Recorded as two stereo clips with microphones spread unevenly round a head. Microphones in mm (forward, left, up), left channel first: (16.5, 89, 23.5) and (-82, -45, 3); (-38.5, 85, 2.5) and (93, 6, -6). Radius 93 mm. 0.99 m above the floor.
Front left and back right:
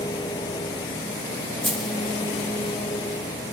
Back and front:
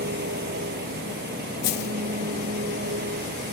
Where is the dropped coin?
140° left.